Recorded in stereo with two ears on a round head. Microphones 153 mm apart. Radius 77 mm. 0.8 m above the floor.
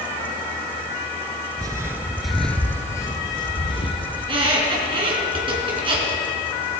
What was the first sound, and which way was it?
Footsteps, 25° right (ahead or behind).